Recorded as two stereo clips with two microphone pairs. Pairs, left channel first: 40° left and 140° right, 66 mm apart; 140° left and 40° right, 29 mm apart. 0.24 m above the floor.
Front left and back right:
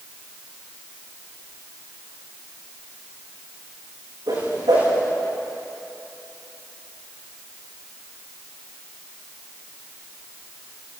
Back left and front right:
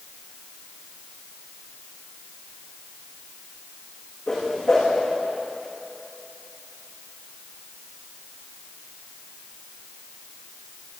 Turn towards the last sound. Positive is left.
turn(degrees=-145)